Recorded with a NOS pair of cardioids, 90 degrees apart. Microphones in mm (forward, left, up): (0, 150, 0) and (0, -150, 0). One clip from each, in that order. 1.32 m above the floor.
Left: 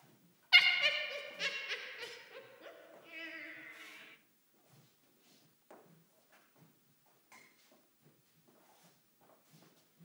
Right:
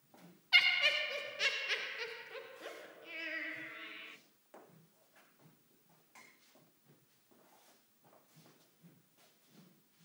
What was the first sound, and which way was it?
Laughter, 20° left.